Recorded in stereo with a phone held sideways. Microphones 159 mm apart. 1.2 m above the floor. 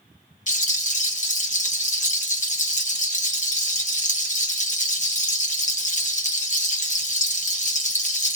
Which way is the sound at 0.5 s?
50° left (ahead or behind).